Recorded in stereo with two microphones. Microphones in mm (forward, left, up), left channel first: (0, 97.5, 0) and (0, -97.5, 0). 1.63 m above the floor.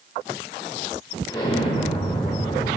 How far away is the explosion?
About 3.5 m.